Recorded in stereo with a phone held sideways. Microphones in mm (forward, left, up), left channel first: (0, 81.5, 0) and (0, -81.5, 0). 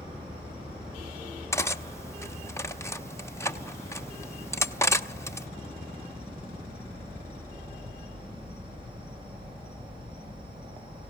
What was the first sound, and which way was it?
An insect, 30° right (ahead or behind).